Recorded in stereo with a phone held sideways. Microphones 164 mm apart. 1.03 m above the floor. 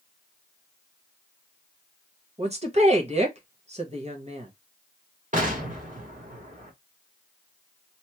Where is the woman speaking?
40° right (ahead or behind), 1.0 m.